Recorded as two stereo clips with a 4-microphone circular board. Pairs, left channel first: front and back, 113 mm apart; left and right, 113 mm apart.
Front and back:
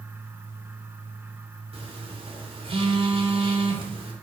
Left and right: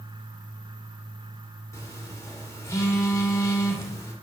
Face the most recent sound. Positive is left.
turn(degrees=155)